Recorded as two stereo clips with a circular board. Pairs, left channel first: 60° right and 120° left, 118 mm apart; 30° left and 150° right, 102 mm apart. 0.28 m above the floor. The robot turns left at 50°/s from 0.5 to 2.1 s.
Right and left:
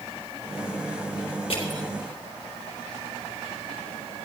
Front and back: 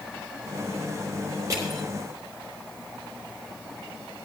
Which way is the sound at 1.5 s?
95° right.